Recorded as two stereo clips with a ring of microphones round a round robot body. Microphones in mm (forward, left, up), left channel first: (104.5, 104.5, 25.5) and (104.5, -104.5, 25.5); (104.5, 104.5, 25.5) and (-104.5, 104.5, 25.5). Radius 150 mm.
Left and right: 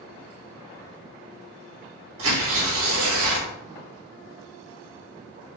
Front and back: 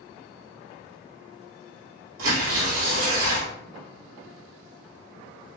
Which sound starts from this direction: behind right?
Tearing paper, at 2.2 s.